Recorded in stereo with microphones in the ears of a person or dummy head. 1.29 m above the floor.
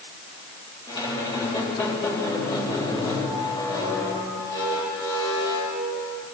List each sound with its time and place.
0.9 s a squeak: 25° left (ahead or behind), 3.5 m